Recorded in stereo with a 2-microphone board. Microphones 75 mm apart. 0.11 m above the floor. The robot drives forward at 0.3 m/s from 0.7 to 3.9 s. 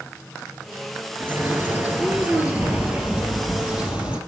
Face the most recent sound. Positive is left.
turn(degrees=-15)  # may be behind; listen again after turning